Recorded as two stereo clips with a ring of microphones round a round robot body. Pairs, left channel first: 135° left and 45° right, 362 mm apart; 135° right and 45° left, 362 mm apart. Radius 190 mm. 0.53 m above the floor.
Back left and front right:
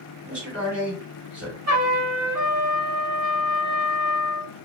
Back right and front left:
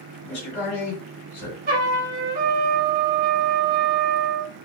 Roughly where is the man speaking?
Behind right.